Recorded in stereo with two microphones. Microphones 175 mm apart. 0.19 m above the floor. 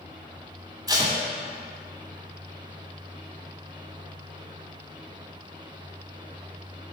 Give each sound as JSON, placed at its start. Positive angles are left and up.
{"t": 0.9, "sound": "tape being pulled", "side_deg": -25, "distance_m": 1.5}